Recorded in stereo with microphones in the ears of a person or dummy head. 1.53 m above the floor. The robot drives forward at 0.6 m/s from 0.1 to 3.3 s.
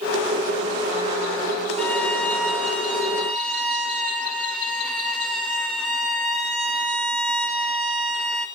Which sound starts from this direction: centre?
A violin, at 1.8 s.